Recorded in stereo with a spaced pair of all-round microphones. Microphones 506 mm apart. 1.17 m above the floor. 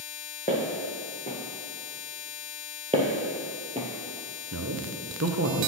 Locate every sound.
0.5 s footsteps: 15° left (ahead or behind), 2.5 m
2.9 s footsteps: 10° right (ahead or behind), 1.5 m
4.5 s a man speaking: 30° right (ahead or behind), 0.8 m